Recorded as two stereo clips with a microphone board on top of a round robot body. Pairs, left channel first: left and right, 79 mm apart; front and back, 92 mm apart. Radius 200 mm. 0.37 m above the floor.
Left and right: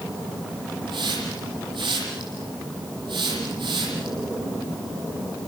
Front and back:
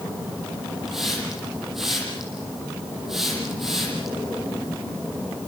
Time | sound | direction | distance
0.9 | a hiss | 95° right | 8.5 m